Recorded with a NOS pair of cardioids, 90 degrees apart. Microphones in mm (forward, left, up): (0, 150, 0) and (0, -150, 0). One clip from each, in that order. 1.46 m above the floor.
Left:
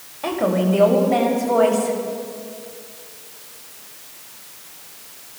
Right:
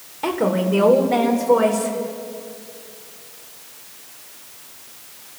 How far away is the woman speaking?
About 4 m.